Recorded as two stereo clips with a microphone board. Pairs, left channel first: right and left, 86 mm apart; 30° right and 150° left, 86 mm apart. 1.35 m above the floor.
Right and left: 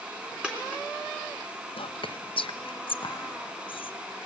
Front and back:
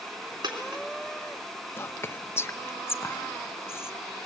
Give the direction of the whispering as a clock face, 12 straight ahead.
3 o'clock.